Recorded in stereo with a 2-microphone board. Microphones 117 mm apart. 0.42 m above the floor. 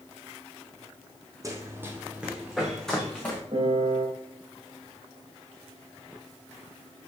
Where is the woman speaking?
No woman speaking in this recording.